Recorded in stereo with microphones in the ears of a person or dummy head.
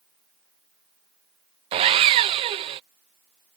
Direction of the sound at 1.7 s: 35° right (ahead or behind).